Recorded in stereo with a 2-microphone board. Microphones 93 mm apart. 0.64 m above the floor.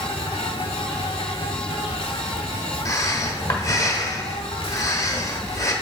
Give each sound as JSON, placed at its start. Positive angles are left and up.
{"t": 0.0, "sound": "an insect", "side_deg": 75, "distance_m": 0.9}
{"t": 2.9, "sound": "breathing", "side_deg": 35, "distance_m": 1.1}